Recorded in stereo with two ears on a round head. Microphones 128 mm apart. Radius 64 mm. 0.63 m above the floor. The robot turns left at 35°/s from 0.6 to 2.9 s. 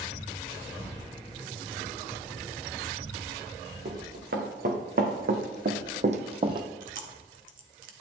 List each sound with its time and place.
3.9 s running footsteps: 70° right (ahead or behind), 3 m; by 6.7 s 30° right (ahead or behind), 1.0 m
6.8 s chewing: 65° right (ahead or behind), 1.4 m